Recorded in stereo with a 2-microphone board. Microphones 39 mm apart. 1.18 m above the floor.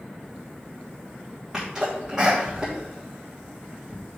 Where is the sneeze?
10° right (ahead or behind), 1.5 m.